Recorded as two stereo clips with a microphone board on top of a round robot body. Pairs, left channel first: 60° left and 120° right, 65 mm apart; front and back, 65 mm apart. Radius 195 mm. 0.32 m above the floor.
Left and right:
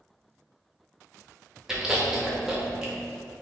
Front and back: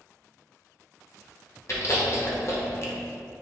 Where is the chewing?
40° right, 1.6 m.